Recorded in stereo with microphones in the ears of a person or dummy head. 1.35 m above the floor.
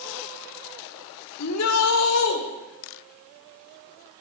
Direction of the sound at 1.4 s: 85° left.